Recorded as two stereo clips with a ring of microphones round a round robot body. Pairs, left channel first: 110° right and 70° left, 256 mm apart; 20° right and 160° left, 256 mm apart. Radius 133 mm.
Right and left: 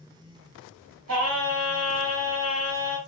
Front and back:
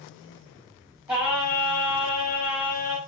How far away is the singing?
About 1.8 m.